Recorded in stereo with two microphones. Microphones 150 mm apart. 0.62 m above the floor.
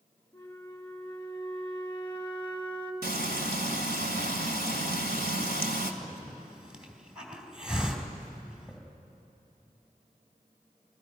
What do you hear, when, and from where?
0.3 s a flute: 10° left (ahead or behind), 1.6 m
3.0 s frying: 75° right (ahead or behind), 1.8 m
6.0 s a hiss: 5° right (ahead or behind), 2.5 m